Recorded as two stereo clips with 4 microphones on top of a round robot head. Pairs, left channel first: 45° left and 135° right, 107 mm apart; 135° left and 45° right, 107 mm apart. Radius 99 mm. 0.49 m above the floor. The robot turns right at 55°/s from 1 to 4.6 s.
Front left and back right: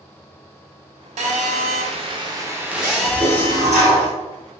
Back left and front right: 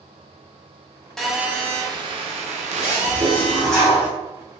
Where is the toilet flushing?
170° left, 1.7 m; by 4.1 s 120° right, 1.7 m.